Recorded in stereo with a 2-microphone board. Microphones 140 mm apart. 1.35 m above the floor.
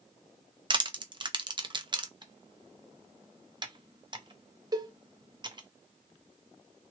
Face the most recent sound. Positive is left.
turn(degrees=-30)  # may be behind; listen again after turning